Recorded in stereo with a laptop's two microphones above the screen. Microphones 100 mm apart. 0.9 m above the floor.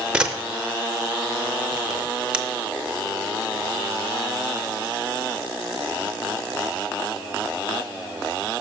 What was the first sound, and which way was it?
A camera shutter, 10° right (ahead or behind).